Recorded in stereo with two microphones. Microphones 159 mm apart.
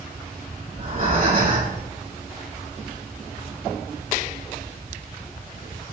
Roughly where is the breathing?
Right.